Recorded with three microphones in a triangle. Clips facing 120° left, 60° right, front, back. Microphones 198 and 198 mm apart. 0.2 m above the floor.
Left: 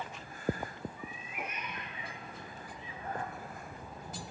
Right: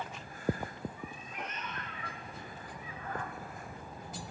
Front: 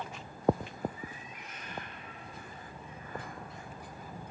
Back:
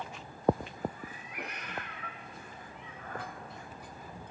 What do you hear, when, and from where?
1.0 s a cat meowing: 150° right, 1.1 m; by 4.3 s straight behind, 3 m